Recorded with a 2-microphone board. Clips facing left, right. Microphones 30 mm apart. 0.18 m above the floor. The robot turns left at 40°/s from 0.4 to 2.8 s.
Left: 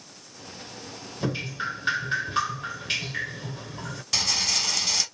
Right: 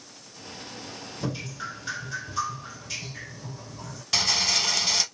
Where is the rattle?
15° right (ahead or behind), 0.6 m.